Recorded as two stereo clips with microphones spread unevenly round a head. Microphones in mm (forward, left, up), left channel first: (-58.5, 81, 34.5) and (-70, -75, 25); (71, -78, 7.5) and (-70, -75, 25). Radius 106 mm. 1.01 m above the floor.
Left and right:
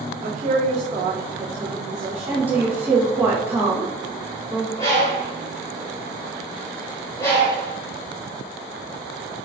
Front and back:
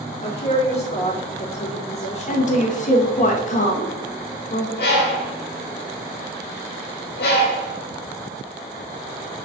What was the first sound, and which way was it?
A woman speaking, 40° right.